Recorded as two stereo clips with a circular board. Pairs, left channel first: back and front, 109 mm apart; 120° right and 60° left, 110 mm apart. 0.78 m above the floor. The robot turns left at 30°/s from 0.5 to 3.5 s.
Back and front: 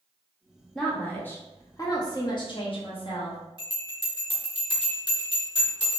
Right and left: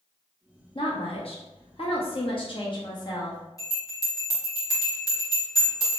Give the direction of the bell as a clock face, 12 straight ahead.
6 o'clock.